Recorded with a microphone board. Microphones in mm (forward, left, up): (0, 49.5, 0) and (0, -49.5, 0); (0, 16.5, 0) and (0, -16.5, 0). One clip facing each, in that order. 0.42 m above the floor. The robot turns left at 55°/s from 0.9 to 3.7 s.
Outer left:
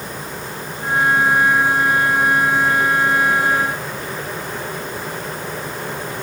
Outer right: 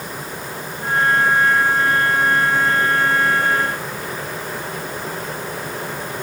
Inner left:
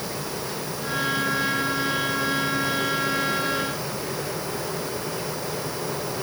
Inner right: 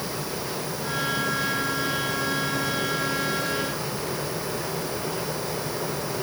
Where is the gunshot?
I don't hear a gunshot.